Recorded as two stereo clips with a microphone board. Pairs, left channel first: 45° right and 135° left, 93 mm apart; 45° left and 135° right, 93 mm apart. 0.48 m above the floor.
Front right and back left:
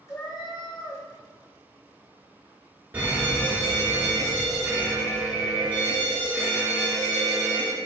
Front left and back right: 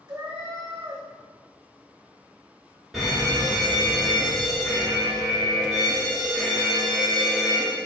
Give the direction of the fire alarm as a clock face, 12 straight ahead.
7 o'clock.